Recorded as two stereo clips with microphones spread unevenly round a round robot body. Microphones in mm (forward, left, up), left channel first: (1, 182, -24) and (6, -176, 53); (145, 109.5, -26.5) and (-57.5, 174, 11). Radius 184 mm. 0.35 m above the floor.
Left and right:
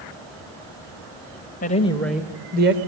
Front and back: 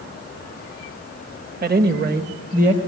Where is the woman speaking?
130° left, 1.7 m; by 2.8 s 140° right, 1.6 m.